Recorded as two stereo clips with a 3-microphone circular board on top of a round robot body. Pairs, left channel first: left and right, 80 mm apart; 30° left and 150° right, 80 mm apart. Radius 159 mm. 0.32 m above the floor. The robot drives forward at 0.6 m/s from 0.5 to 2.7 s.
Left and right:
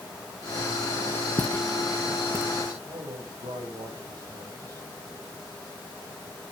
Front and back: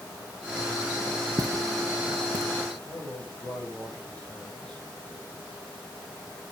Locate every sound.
1.4 s footsteps: 150° left, 0.5 m; by 2.7 s 140° right, 1.4 m
2.8 s a man speaking: 45° right, 6.5 m